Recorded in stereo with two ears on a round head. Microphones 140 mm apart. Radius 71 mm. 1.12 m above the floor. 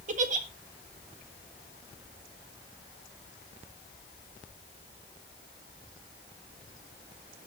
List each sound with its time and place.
0.1 s a giggle: 55° right (ahead or behind), 1.6 m